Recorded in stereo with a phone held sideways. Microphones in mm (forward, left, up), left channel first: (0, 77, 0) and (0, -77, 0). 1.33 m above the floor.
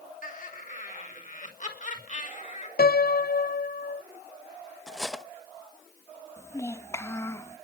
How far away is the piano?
About 0.6 m.